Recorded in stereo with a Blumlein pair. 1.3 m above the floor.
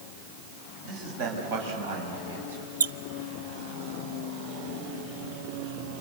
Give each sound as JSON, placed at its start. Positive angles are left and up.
{"t": 0.8, "sound": "a man speaking", "azimuth_deg": -50, "distance_m": 7.5}
{"t": 2.8, "sound": "a squeak", "azimuth_deg": -70, "distance_m": 0.6}